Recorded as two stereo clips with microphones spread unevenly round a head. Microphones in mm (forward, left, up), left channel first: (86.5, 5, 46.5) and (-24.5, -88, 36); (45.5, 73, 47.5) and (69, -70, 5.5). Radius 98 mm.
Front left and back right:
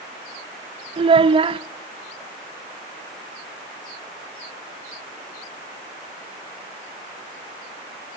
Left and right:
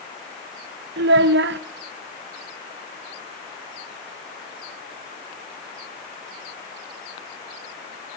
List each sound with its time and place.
1.0 s a child speaking: 85° right, 0.7 m